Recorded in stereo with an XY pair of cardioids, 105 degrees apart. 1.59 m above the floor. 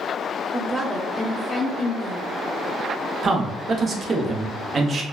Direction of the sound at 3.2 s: 40° right.